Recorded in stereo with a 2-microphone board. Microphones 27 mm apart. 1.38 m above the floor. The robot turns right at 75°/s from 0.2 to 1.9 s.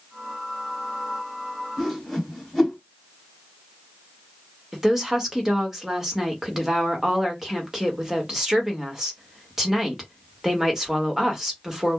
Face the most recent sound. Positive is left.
turn(degrees=-10)  # may be behind; listen again after turning